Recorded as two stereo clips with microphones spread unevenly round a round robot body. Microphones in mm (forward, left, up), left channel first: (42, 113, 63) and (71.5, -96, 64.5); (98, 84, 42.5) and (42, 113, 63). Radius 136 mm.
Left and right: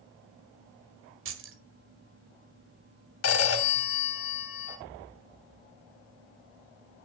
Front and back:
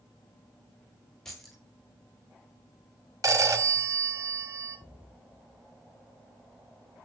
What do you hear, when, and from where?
1.2 s keys jangling: 105° right, 1.5 m
3.2 s a phone ringing: 115° left, 2.5 m